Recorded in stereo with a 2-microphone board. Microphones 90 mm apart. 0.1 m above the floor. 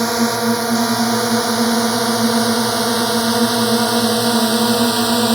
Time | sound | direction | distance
0.0 | a drone | centre (ahead or behind) | ?